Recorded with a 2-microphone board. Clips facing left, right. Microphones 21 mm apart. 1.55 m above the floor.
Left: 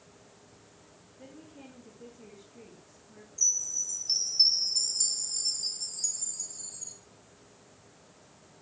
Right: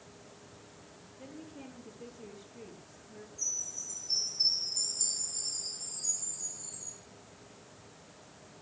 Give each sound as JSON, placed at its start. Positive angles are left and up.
{"t": 1.2, "sound": "a woman speaking", "side_deg": -5, "distance_m": 3.0}
{"t": 3.4, "sound": "a chime", "side_deg": 65, "distance_m": 3.5}